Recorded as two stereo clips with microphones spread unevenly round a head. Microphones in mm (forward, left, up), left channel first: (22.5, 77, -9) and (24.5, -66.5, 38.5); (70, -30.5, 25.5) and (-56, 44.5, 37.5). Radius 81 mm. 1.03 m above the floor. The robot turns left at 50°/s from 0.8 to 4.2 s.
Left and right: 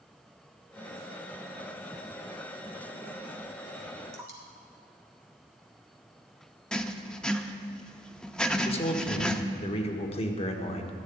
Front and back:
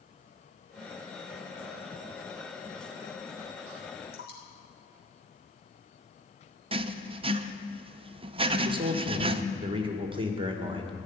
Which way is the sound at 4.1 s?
15° right.